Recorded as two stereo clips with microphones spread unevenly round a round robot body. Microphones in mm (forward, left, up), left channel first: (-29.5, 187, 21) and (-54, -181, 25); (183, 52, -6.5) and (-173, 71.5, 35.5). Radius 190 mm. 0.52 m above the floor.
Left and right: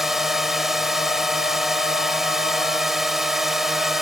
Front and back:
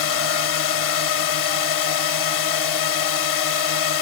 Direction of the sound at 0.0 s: 5° right.